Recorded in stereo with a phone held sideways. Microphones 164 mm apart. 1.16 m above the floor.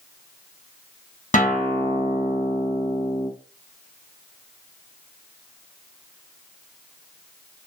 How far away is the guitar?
About 0.8 m.